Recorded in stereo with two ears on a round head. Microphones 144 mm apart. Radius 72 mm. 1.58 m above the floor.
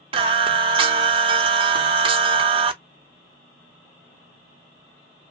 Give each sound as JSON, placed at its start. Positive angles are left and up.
{"t": 0.1, "sound": "singing", "side_deg": -35, "distance_m": 0.5}